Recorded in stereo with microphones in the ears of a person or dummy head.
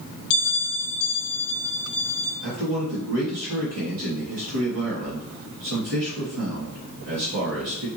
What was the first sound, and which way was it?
A bell, 90° left.